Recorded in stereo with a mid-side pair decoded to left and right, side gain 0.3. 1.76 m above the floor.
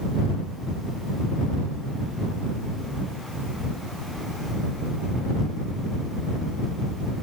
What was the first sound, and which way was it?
Only background noise.